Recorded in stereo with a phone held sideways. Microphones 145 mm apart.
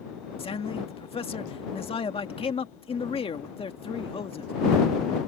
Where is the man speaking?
40° left (ahead or behind).